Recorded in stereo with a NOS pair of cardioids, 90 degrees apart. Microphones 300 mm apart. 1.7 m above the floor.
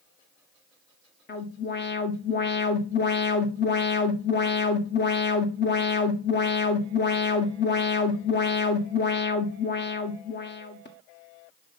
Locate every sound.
1.3 s an alarm: 35° left, 1.5 m